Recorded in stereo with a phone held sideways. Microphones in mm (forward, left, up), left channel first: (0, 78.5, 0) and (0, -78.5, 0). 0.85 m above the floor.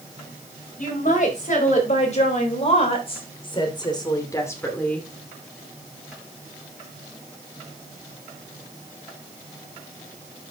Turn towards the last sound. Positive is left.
turn(degrees=5)  # may be behind; listen again after turning